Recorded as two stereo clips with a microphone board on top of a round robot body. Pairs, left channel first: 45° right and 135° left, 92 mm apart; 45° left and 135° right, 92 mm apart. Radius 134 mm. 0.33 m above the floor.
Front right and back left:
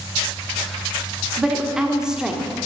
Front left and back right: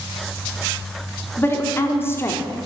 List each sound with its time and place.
1.4 s a woman speaking: 60° left, 1.5 m